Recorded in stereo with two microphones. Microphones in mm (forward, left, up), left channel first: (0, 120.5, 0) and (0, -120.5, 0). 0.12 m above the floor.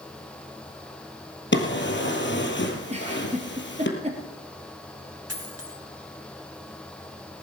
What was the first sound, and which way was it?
A drawer, 50° left (ahead or behind).